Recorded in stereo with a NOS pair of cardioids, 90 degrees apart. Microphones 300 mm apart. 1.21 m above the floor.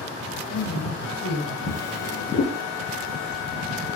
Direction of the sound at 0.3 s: 50° left.